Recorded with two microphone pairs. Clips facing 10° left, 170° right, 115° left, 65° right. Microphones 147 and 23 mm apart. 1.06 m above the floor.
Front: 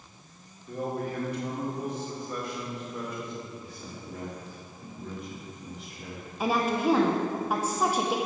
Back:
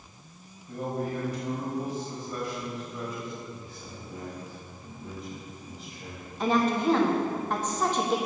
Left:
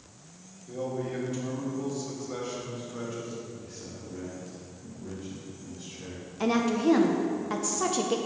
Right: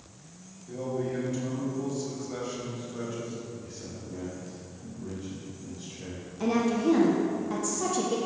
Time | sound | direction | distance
0.7 | a man speaking | 35° left | 2.5 m
3.6 | a man speaking | straight ahead | 2.5 m
6.4 | a woman speaking | 85° left | 0.8 m